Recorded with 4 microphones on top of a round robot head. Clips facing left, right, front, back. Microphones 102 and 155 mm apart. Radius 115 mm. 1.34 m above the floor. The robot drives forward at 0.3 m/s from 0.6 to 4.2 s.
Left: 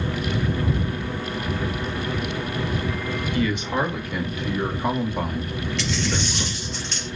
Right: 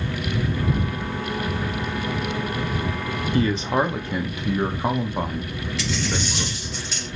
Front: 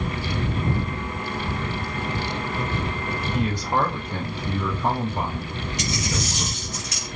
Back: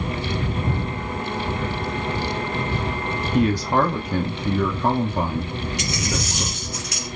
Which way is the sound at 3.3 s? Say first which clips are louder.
Right 3 dB, back 6 dB; 150° right.